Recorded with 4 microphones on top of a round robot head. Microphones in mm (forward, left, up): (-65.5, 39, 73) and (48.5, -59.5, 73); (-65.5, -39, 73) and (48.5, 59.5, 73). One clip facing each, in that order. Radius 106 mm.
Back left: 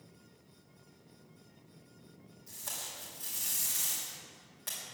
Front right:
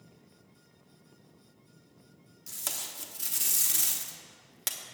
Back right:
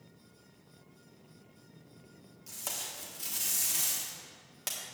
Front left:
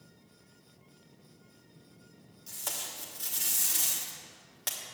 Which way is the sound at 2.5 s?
55° right.